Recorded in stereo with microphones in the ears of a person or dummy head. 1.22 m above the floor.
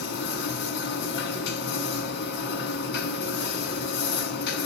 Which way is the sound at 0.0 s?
70° left (ahead or behind).